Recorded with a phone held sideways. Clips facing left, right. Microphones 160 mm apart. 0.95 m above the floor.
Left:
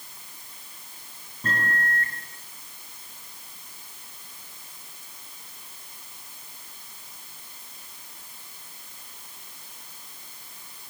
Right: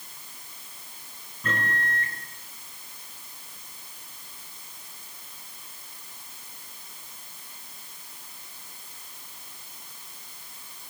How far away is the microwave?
About 7.5 m.